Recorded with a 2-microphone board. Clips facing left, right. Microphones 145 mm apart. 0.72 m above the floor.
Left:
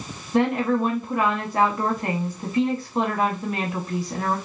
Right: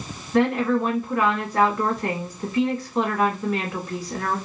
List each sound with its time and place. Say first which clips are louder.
0.3 s a woman speaking: right 1 dB; 20° left (ahead or behind), 0.9 m